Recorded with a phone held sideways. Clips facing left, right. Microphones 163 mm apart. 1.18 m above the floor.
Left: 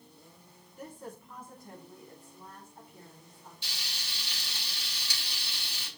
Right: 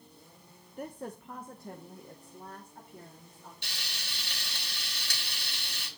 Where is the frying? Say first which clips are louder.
Right 1 dB; 70° right (ahead or behind), 3.5 m.